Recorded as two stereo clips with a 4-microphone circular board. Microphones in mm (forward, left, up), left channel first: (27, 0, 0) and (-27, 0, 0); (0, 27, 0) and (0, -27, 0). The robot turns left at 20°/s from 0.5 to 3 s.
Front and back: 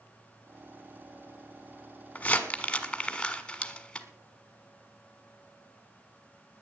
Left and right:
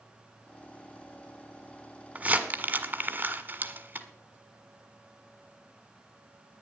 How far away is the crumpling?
About 1.5 m.